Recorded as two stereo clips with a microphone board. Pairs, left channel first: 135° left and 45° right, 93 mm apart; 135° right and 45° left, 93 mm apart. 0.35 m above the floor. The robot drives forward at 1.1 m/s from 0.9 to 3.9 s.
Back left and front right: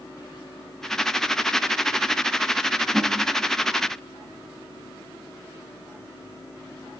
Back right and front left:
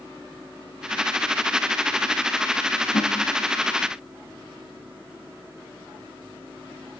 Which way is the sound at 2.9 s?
120° right.